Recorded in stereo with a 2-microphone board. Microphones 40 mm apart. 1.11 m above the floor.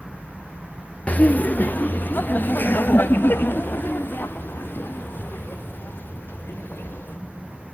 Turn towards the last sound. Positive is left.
turn(degrees=60)  # may be behind; listen again after turning